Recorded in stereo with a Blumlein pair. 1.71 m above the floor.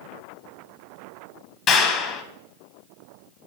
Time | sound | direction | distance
1.7 | a clap | 30° left | 1.5 m